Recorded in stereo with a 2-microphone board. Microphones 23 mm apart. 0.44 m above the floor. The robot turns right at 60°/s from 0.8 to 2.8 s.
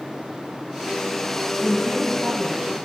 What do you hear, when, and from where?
1.6 s a woman speaking: 165° right, 2.5 m; by 2.7 s 95° right, 2.5 m